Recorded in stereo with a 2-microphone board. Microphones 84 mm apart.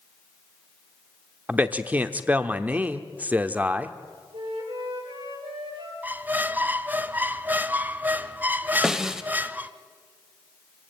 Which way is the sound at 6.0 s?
20° right (ahead or behind).